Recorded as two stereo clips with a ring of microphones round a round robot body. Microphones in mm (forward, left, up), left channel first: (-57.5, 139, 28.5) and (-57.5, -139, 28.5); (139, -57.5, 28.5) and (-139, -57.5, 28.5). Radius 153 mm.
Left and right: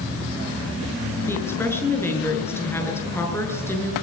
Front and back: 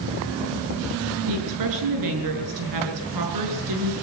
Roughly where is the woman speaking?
Behind.